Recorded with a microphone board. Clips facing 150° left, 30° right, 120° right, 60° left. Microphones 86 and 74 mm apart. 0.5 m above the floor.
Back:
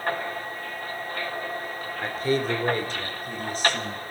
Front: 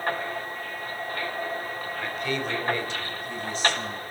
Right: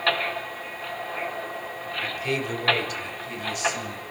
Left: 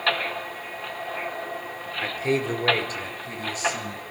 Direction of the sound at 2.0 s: 105° left.